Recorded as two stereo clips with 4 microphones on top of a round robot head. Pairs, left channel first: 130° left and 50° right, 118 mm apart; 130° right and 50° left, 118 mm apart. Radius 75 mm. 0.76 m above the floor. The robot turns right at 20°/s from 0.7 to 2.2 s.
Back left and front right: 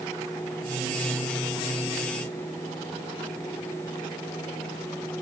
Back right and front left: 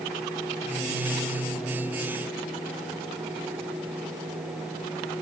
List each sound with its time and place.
Only background noise.